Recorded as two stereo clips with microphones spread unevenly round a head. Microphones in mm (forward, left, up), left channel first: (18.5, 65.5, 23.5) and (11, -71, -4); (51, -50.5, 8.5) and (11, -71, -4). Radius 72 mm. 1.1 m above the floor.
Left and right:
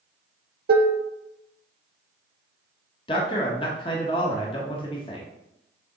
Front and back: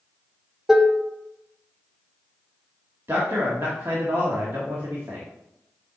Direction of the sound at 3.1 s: 150° left.